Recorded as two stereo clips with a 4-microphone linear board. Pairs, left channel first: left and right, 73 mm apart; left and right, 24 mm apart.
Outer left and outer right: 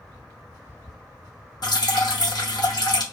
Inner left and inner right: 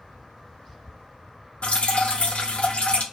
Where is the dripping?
60° left (ahead or behind), 0.6 m.